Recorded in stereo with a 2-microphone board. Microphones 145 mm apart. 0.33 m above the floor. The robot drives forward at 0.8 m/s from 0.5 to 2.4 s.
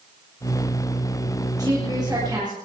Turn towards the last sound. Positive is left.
turn(degrees=-30)  # may be behind; listen again after turning